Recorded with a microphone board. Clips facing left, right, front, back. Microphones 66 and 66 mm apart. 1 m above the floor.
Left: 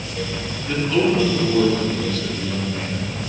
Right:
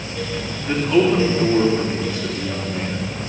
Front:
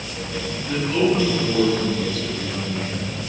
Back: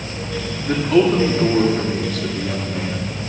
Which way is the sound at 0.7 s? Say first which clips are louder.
Right 2 dB, back 5 dB; 160° right.